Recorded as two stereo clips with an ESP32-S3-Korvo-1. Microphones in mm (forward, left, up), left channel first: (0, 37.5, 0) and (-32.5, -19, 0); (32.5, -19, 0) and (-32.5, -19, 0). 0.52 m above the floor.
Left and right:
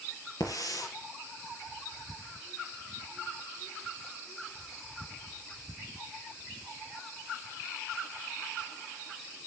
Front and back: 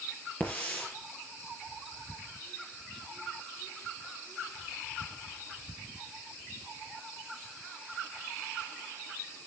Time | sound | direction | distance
0.4 | a hiss | 65° left | 5 m